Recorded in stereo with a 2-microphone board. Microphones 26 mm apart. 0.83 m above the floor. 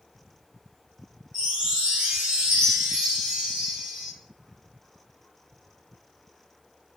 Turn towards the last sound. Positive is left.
turn(degrees=-30)  # may be behind; listen again after turning